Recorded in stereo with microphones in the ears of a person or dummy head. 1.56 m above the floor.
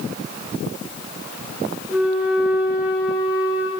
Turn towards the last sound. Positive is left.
turn(degrees=-5)  # may be behind; listen again after turning